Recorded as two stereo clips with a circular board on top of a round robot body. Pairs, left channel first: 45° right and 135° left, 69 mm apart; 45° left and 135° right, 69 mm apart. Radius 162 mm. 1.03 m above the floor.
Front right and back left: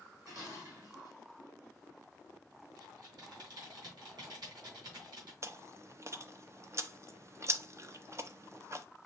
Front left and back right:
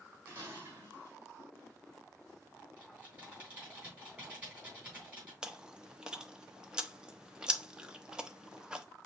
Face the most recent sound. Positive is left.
turn(degrees=150)